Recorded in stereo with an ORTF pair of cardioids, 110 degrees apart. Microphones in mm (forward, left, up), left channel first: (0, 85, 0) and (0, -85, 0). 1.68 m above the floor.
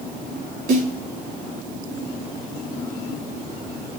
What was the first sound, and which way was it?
A snare drum, 65° right.